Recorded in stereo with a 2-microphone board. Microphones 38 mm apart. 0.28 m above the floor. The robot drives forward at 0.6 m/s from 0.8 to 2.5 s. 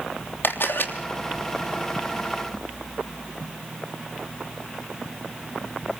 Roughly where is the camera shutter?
Left.